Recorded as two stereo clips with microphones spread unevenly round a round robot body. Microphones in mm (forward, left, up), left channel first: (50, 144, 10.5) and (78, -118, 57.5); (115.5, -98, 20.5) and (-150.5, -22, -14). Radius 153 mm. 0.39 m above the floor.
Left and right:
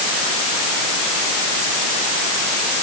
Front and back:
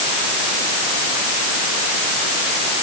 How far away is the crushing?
No crushing in this recording.